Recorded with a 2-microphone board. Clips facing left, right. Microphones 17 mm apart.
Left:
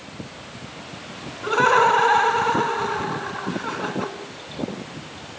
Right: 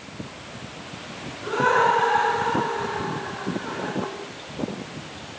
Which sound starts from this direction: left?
Laughter, at 1.4 s.